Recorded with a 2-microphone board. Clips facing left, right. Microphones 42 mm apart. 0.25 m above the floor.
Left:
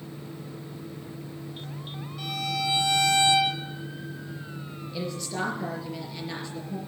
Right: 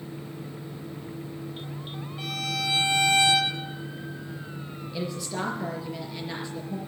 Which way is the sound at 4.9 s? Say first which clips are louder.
Even; 5° right (ahead or behind).